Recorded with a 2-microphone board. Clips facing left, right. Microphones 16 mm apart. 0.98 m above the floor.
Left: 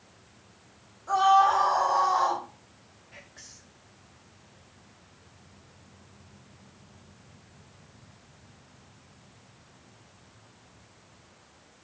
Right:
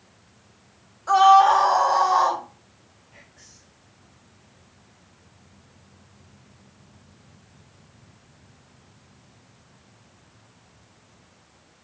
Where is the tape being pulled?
No tape being pulled in this recording.